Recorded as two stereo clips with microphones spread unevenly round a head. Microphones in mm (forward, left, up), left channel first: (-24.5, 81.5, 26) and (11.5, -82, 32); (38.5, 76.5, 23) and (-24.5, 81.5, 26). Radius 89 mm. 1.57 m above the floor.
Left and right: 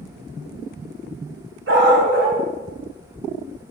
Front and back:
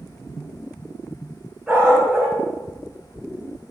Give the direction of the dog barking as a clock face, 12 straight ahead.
3 o'clock.